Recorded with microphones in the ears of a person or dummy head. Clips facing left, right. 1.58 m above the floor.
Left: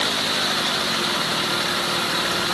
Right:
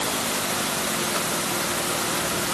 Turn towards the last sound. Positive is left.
No sound to turn to.